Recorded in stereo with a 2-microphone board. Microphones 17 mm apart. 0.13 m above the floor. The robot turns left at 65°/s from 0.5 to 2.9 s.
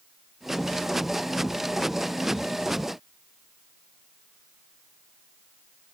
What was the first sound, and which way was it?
Only background noise.